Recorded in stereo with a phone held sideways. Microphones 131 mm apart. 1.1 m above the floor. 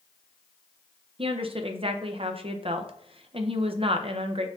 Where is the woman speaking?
45° right (ahead or behind), 0.5 m.